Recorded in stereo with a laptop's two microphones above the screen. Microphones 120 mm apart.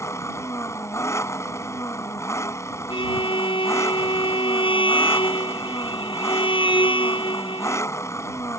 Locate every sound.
0.0 s an engine running: 25° left (ahead or behind)
2.9 s a violin: 45° left (ahead or behind)